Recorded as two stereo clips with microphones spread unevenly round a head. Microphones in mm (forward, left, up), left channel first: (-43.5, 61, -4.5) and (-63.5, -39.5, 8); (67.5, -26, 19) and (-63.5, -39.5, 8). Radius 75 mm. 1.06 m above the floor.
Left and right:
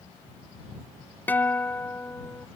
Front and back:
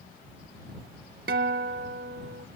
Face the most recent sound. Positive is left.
turn(degrees=155)